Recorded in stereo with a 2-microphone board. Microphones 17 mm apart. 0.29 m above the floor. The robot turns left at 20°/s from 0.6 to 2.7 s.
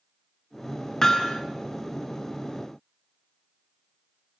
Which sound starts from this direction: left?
Hammering, at 1.0 s.